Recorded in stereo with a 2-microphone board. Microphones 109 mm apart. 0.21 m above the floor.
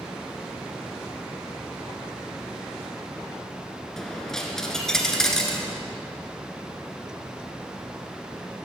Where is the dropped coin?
5° left (ahead or behind), 1.5 m.